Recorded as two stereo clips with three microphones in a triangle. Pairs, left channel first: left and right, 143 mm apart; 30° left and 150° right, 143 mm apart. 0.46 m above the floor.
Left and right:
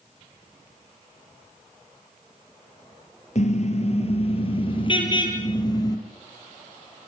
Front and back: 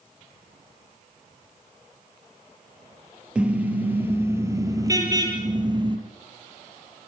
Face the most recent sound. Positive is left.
turn(degrees=155)